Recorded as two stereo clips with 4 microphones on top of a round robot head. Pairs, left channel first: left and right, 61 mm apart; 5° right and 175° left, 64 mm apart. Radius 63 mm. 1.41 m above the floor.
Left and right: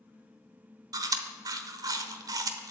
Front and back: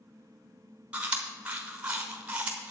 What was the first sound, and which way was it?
Chewing, 110° right.